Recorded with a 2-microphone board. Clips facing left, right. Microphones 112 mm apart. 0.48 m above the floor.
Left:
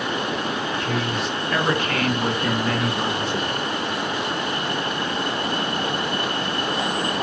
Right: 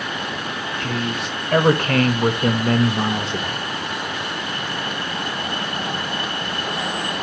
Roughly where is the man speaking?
Right.